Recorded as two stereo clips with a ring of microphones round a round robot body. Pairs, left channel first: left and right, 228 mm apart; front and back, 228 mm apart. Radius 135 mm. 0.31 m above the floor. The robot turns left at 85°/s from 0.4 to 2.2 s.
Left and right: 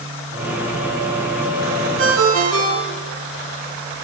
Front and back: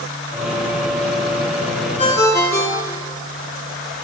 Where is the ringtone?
60° right, 2.5 m; by 3.2 s 75° right, 2.5 m.